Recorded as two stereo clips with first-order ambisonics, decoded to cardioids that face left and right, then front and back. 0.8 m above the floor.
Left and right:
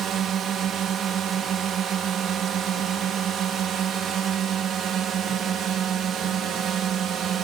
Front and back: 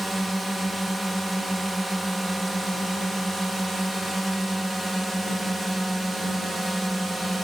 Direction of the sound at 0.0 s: 100° right.